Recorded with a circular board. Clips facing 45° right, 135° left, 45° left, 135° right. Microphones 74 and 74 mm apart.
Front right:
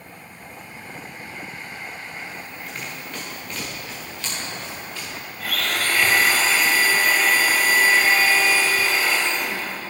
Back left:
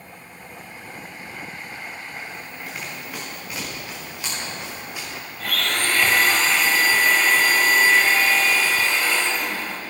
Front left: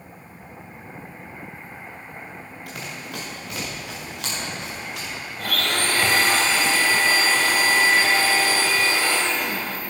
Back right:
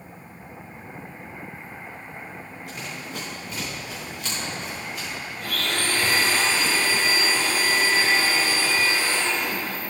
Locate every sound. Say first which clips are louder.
2.7 s running footsteps: back left 1 dB, front left 1 dB; 50° left, 3.5 m; by 5.1 s 60° left, 6 m
5.4 s a blender: even, front left 3 dB; 40° left, 1.2 m